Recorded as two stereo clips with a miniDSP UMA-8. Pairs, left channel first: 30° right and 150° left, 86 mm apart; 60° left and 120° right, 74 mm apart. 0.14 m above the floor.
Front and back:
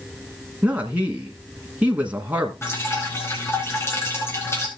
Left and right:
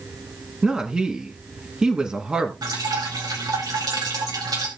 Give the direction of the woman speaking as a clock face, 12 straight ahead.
6 o'clock.